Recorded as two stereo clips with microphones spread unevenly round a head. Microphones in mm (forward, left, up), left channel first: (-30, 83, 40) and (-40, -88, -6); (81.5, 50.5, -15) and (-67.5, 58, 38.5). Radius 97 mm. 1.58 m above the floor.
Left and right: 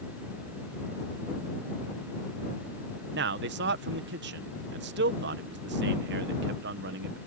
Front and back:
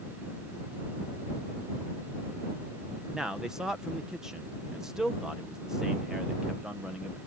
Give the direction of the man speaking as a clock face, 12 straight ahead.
3 o'clock.